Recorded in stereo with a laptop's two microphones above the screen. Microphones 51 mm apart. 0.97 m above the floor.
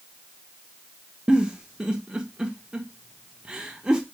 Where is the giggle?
15° right (ahead or behind), 1.0 m.